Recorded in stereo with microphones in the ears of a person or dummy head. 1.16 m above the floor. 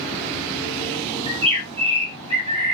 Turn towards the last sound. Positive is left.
turn(degrees=-25)  # may be behind; listen again after turning